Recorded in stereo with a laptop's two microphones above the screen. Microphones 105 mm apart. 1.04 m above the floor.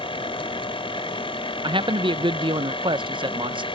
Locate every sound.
0.0 s a machine running: 60° left (ahead or behind)
1.6 s a man speaking: 50° right (ahead or behind)